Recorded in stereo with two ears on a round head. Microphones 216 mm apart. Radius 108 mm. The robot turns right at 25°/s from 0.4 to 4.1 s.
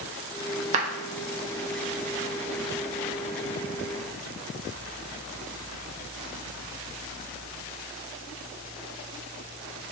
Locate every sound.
0.7 s a clap: 30° right (ahead or behind), 0.5 m